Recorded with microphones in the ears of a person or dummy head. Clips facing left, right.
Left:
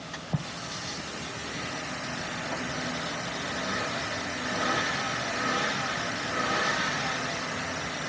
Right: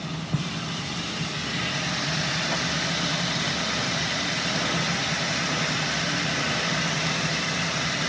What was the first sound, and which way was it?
A fan, 60° right (ahead or behind).